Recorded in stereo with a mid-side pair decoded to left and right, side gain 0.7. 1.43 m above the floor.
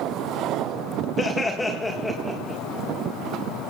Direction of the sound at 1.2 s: 20° left.